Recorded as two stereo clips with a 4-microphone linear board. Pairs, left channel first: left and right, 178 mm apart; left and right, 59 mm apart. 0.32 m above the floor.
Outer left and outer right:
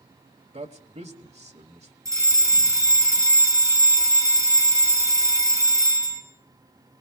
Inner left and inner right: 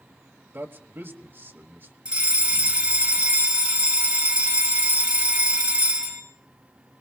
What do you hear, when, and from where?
0.5 s a man speaking: 40° right (ahead or behind), 1.4 m
2.0 s a fire alarm: 20° right (ahead or behind), 3 m